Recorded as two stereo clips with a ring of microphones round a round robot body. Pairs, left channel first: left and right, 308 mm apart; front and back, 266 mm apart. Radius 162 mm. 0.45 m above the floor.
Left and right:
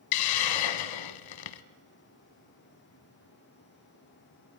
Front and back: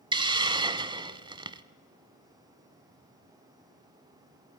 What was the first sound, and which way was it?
A hiss, 105° left.